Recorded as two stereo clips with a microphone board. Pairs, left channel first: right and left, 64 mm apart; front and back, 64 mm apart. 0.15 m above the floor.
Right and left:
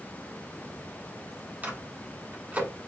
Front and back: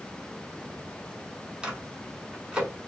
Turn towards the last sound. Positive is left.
turn(degrees=120)